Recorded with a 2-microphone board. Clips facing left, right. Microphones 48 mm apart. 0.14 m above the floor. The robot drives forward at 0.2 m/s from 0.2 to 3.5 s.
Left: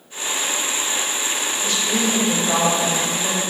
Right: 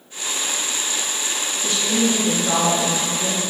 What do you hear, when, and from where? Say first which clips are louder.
1.6 s a woman speaking: right 2 dB; 15° right (ahead or behind), 1.8 m; by 3.4 s 10° right (ahead or behind), 2 m